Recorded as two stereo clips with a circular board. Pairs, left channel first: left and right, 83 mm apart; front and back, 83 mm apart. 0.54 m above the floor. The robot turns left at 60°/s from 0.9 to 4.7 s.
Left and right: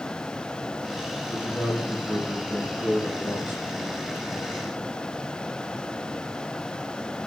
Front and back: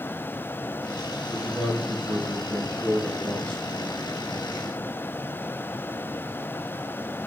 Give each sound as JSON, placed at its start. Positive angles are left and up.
{"t": 1.3, "sound": "a man speaking", "azimuth_deg": -155, "distance_m": 6.5}